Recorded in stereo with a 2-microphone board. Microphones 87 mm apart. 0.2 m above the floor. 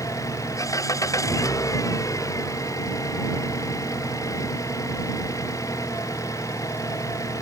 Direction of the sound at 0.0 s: 40° left (ahead or behind).